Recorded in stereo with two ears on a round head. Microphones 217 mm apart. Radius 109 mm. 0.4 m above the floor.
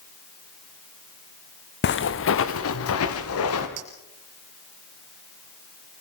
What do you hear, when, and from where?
1.8 s footsteps: 45° left (ahead or behind), 1.5 m; by 3.7 s 65° left (ahead or behind), 4 m
3.8 s a clink: 70° right (ahead or behind), 5.5 m